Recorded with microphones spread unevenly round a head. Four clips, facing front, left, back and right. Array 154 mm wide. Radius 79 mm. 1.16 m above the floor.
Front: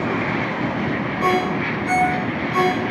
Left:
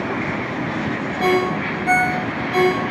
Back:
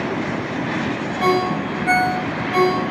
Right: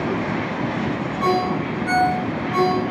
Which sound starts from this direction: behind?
A ringtone, at 1.2 s.